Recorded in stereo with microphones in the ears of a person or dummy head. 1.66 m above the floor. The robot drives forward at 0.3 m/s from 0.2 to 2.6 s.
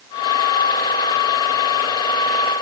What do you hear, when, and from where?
Only background noise.